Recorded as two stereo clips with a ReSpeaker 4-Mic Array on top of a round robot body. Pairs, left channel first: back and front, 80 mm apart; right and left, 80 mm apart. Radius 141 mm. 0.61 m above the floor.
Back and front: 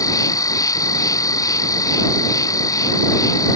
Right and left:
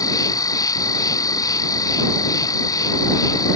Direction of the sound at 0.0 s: 135° right.